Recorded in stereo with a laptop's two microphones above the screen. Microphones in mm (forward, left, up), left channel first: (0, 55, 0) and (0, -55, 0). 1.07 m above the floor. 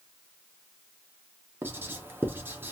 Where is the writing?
20° right (ahead or behind), 0.5 m.